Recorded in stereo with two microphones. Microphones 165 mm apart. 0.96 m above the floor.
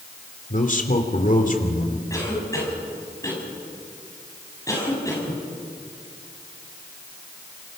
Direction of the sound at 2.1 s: 20° left (ahead or behind).